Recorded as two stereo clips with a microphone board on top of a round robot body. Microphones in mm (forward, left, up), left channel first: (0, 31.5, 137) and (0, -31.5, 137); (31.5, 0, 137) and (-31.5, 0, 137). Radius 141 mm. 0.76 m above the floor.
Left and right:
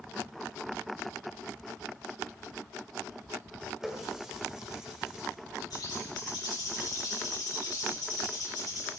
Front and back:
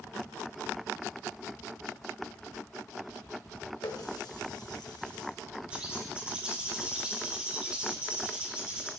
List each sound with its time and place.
3.8 s a running tap: 10° right, 2.5 m
5.7 s a bird: 110° left, 4 m